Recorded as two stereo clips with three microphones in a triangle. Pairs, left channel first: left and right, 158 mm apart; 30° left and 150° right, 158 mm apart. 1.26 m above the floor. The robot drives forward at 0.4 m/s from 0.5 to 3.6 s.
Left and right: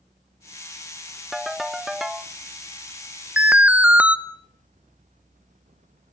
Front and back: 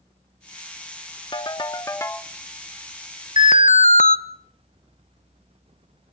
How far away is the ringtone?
About 0.9 m.